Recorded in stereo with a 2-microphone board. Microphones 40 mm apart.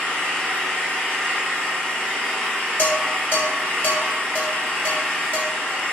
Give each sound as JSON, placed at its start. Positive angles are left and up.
{"t": 0.0, "sound": "an engine running", "side_deg": 25, "distance_m": 0.9}
{"t": 2.8, "sound": "dishes clattering", "side_deg": 45, "distance_m": 1.5}